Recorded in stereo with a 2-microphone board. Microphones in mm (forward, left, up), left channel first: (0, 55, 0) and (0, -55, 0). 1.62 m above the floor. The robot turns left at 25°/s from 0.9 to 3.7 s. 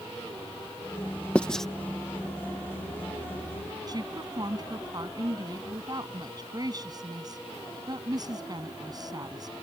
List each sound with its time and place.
1.4 s writing: 10° left (ahead or behind); by 1.6 s 5° left (ahead or behind)
3.9 s a woman speaking: 35° right (ahead or behind)